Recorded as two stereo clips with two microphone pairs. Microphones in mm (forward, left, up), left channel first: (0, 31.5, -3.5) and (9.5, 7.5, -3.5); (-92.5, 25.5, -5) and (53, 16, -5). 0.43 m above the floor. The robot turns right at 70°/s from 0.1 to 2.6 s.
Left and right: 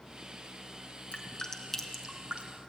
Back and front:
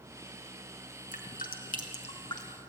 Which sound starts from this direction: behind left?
Dripping, at 1.1 s.